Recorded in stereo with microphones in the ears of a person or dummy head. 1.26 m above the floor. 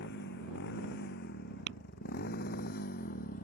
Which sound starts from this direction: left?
A motorcycle, at 0.0 s.